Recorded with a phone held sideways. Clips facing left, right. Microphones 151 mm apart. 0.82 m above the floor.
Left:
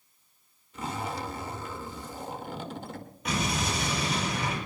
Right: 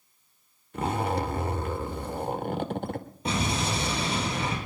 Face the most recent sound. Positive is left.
turn(degrees=-30)  # may be behind; listen again after turning